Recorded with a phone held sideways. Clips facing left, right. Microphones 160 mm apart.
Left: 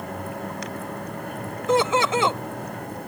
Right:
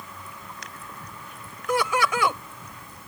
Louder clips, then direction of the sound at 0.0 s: Left 12 dB; 60° left (ahead or behind).